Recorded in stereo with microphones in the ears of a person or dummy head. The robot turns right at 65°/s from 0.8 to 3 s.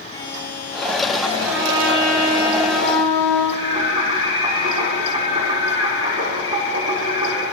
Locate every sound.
0.1 s a buzzer: 150° left, 9.5 m; by 1.3 s straight behind, 9.5 m
1.4 s a trumpet: straight behind, 9 m; by 3.4 s 80° right, 9 m
3.5 s singing: 25° right (ahead or behind), 5.5 m